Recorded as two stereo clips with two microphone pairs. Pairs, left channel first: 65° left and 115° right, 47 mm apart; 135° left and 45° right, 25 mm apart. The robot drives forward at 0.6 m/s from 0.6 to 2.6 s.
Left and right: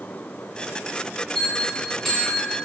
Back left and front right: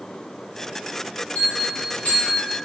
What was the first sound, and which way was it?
A bell, 150° left.